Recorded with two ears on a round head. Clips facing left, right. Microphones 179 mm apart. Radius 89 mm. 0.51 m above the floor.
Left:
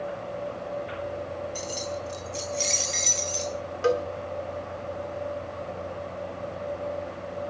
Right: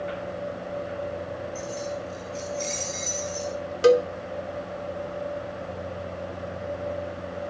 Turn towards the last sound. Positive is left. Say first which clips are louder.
# right 7 dB
turn(degrees=-45)  # may be behind; listen again after turning